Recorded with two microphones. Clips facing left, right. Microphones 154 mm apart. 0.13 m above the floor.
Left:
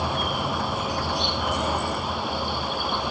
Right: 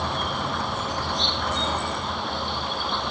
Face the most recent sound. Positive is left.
turn(degrees=10)  # may be behind; listen again after turning